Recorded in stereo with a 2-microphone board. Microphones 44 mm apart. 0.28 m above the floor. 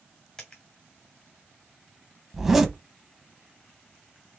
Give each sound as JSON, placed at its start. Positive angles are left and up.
{"t": 0.4, "sound": "a dropped coin", "side_deg": 15, "distance_m": 2.5}
{"t": 2.3, "sound": "a zipper", "side_deg": -10, "distance_m": 0.9}